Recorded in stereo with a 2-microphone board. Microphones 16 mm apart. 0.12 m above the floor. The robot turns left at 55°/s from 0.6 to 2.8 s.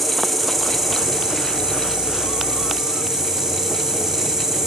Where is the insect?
15° right, 5.5 m; by 4.7 s 140° right, 5.5 m.